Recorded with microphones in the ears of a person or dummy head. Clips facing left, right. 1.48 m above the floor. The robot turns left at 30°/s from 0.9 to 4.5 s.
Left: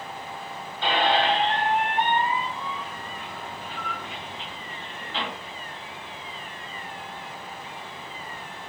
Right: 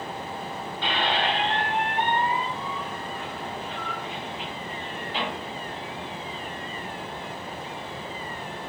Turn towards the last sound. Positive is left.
turn(degrees=-20)